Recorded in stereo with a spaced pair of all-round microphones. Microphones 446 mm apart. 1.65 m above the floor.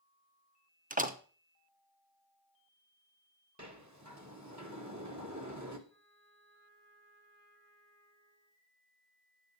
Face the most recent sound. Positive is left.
turn(degrees=-50)  # may be behind; listen again after turning